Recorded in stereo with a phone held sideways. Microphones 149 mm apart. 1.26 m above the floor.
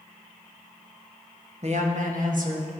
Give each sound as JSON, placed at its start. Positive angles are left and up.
{"t": 1.6, "sound": "a woman speaking", "side_deg": -45, "distance_m": 1.1}